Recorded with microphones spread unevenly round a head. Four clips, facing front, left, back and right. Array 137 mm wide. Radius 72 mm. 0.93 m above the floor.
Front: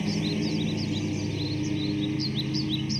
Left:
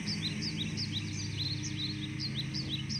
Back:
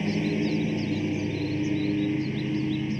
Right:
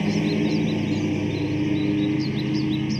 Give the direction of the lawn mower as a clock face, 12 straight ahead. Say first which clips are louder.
Right 17 dB, back 2 dB; 4 o'clock.